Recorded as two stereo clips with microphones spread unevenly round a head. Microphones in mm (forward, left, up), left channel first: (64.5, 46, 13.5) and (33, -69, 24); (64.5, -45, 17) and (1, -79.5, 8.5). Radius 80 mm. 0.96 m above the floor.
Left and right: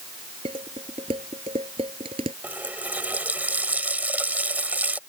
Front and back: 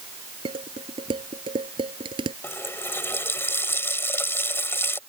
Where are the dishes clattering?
165° right.